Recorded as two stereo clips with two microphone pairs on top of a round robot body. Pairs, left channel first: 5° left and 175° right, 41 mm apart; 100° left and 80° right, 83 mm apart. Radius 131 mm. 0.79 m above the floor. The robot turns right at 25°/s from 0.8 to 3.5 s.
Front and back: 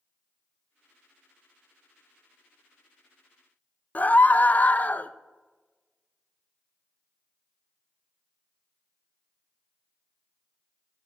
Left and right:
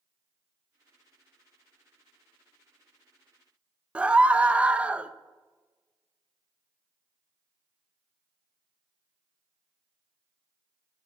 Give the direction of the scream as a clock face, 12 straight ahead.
12 o'clock.